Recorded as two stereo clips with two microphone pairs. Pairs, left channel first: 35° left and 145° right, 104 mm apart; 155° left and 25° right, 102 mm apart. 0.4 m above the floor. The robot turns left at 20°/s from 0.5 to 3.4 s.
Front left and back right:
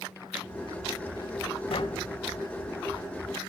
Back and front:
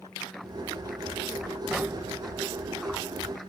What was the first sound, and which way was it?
Tapping, 55° left.